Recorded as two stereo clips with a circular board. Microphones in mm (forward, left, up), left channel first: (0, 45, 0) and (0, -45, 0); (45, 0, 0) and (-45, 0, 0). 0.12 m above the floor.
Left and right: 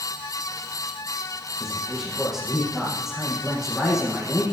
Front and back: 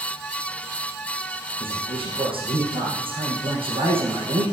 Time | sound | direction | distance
1.6 | a man speaking | 175° left | 3.5 m